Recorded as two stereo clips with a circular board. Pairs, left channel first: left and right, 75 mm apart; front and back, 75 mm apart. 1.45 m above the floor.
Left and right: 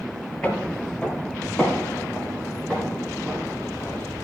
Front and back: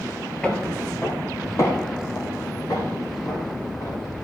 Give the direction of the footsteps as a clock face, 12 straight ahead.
10 o'clock.